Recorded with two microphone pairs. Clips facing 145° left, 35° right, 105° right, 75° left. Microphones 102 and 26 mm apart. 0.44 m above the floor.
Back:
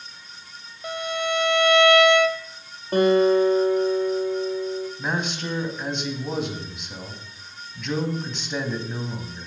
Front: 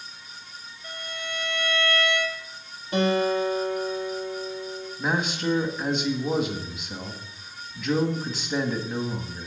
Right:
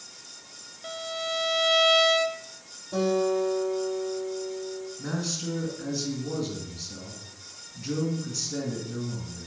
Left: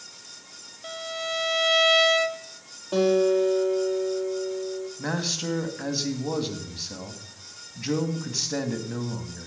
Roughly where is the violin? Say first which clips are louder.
Back 11 dB, even; behind.